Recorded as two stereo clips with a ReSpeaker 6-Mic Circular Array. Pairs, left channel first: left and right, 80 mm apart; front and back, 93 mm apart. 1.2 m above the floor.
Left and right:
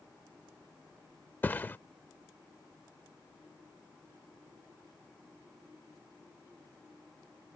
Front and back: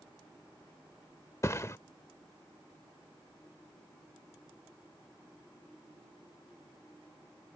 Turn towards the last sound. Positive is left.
turn(degrees=40)